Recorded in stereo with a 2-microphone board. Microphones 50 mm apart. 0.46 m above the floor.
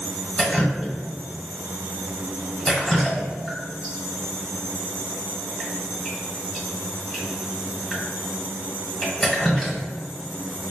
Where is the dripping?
10° left (ahead or behind), 1.2 m.